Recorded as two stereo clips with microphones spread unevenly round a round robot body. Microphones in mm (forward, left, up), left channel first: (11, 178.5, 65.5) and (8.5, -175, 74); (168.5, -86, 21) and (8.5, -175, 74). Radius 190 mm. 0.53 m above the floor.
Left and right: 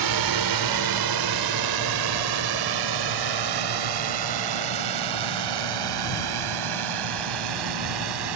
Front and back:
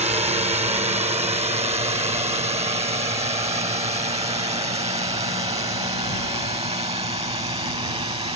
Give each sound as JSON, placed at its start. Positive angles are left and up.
{"t": 0.0, "sound": "a drone", "azimuth_deg": -90}